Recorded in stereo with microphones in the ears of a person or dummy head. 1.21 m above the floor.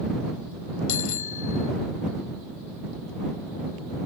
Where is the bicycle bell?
80° left.